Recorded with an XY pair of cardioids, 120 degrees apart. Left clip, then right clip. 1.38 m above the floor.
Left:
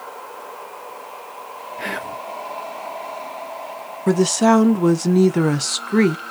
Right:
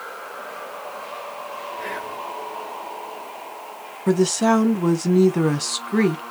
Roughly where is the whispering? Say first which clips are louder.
Left 5 dB; ahead left.